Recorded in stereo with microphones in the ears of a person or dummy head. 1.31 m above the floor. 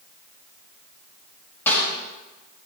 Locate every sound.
1.7 s a snare drum: 5° left (ahead or behind), 7 m